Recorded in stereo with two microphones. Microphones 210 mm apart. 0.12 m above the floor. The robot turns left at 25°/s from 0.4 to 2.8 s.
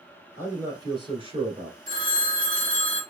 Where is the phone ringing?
45° right (ahead or behind), 0.8 m; by 3.0 s 40° right (ahead or behind), 0.8 m.